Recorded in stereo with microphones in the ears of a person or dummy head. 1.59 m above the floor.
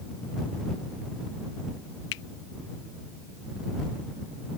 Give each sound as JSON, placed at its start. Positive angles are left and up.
{"t": 2.1, "sound": "a finger snap", "side_deg": 65}